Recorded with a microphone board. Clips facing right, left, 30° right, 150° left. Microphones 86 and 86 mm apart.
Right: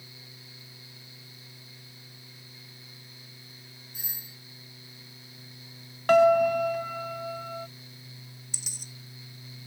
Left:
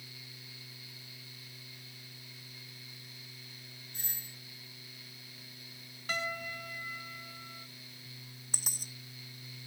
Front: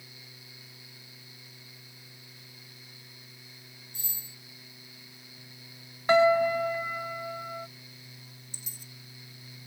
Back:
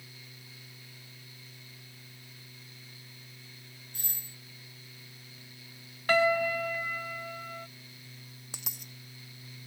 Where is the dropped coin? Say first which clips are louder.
Left 3 dB, back 3 dB; 135° left.